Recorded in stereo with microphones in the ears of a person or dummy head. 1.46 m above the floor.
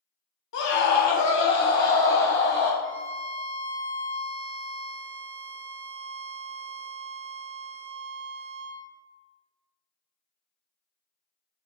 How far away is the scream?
About 0.8 m.